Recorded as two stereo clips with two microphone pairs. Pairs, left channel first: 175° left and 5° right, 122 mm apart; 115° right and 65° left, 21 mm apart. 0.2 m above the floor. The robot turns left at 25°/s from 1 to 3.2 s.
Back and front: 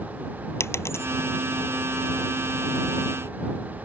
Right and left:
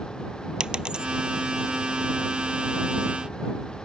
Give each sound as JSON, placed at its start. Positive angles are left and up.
{"t": 0.6, "sound": "a dropped coin", "azimuth_deg": 110}